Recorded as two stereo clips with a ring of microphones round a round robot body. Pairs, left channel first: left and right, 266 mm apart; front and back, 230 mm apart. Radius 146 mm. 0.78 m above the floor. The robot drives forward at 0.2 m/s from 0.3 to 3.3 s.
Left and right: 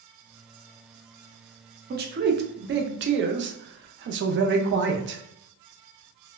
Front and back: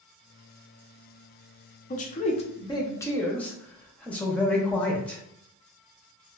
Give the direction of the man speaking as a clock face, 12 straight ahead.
1 o'clock.